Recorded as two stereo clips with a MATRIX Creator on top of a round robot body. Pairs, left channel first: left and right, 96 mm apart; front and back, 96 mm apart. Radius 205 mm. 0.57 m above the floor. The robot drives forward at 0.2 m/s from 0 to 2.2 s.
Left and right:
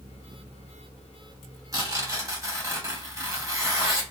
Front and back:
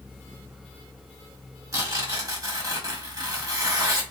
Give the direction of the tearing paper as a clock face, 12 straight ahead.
4 o'clock.